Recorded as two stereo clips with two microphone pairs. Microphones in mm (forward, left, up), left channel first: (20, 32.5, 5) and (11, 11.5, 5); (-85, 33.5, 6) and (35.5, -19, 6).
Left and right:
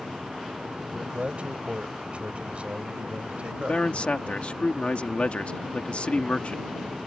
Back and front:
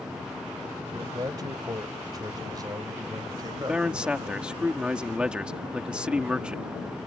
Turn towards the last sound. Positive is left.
turn(degrees=60)